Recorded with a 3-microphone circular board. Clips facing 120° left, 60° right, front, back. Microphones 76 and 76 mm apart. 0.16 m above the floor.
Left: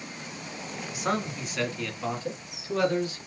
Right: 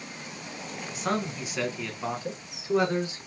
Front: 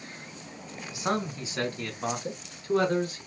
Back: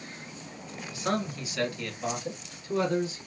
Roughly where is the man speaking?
Ahead left.